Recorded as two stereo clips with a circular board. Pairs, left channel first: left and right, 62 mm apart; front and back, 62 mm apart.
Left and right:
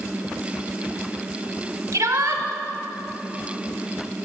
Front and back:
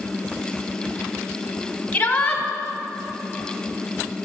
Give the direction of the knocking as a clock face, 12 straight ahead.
No knocking in this recording.